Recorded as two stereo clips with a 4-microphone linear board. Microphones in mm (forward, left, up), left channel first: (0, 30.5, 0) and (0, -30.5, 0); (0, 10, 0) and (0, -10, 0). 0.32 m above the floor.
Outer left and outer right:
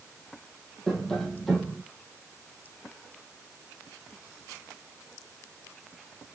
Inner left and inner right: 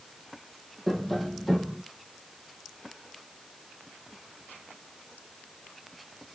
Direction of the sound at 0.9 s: 5° left (ahead or behind).